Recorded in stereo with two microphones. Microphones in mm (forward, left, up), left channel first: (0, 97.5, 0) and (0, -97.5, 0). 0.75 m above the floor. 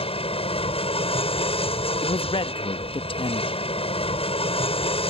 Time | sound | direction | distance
0.0 | an aircraft | 30° left (ahead or behind) | ?
2.0 | a man speaking | 25° left (ahead or behind) | ?